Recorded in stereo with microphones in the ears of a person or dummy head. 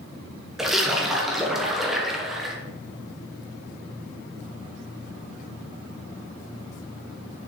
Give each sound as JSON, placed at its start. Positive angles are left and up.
{"t": 0.6, "sound": "a splash", "side_deg": 0, "distance_m": 1.0}